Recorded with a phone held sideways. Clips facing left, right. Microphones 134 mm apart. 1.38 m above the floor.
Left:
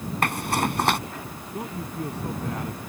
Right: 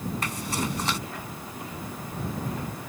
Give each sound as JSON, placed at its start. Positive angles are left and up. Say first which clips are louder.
{"t": 0.2, "sound": "a zipper", "louder": "left 10 dB", "side_deg": 65}
{"t": 1.5, "sound": "a man speaking", "louder": "left 8 dB", "side_deg": 85}